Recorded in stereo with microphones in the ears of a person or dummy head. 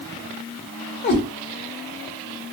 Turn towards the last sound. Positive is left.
turn(degrees=50)  # may be behind; listen again after turning